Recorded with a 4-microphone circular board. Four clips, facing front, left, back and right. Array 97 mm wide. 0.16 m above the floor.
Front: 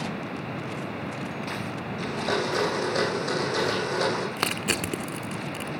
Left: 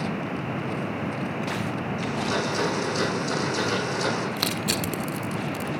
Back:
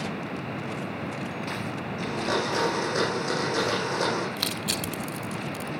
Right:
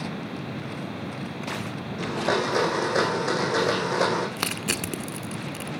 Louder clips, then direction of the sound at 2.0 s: Right 4 dB, even; 90° right.